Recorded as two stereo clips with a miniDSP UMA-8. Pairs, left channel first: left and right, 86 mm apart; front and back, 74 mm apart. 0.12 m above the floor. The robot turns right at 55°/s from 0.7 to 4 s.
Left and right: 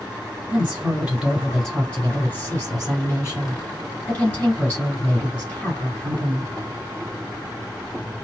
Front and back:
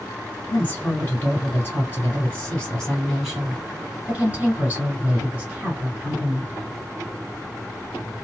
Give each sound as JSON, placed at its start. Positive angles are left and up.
{"t": 0.5, "sound": "a woman speaking", "azimuth_deg": -40, "distance_m": 1.9}